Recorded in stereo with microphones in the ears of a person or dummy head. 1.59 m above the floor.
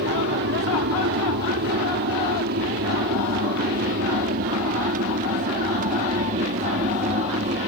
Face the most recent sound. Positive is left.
turn(degrees=-35)  # may be behind; listen again after turning